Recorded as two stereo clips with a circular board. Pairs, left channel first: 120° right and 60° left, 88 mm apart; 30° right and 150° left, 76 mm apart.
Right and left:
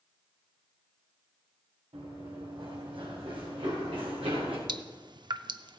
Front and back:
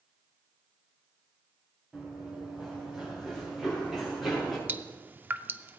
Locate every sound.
1.9 s running footsteps: 75° left, 5.5 m; by 4.6 s 60° left, 4.5 m
4.7 s dripping: 85° left, 0.5 m